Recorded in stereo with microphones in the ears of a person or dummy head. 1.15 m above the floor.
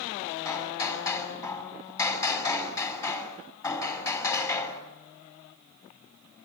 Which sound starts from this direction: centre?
Hammering, at 0.5 s.